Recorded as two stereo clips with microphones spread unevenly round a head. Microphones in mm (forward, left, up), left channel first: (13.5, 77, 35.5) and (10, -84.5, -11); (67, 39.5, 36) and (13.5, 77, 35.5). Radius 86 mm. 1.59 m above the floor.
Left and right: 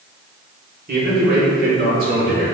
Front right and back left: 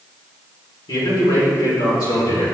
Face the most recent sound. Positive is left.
turn(degrees=-55)